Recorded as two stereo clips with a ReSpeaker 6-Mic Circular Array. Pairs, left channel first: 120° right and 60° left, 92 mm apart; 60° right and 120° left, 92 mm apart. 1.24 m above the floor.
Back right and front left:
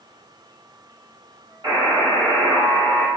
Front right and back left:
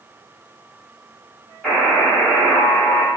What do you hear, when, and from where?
1.6 s a buzzer: 30° left, 1.4 m